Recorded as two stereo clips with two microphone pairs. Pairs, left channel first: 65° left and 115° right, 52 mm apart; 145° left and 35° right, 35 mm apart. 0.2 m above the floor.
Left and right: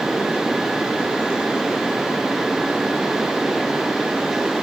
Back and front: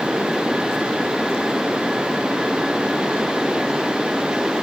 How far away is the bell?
No bell in this recording.